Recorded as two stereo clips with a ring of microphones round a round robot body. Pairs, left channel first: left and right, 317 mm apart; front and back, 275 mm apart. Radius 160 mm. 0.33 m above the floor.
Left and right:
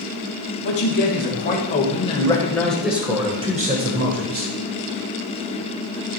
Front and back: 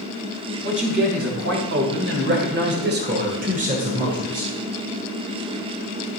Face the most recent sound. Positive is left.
turn(degrees=-105)